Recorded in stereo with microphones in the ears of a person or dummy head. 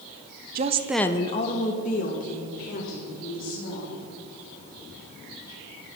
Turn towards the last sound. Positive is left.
turn(degrees=50)  # may be behind; listen again after turning